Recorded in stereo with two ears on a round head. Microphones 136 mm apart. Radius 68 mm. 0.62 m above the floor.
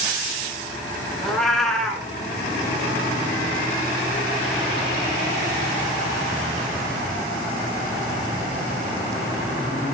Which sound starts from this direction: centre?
A cat meowing, at 1.2 s.